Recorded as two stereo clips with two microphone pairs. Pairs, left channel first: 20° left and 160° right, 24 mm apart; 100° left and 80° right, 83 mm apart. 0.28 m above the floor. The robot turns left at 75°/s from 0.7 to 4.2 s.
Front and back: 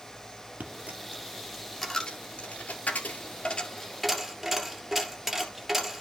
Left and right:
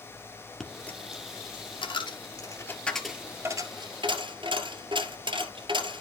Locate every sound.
0.6 s a dropped coin: 175° right, 2.0 m; by 6.0 s 80° right, 2.0 m